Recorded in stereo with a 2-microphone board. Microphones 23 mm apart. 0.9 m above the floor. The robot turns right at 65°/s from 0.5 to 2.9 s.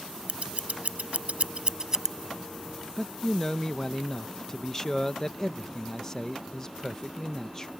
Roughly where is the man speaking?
Left.